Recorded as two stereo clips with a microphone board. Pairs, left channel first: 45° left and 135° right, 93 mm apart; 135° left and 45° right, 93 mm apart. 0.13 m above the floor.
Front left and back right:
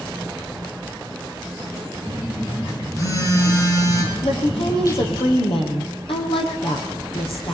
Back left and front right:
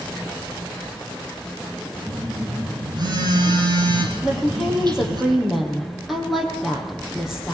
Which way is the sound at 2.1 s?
10° right.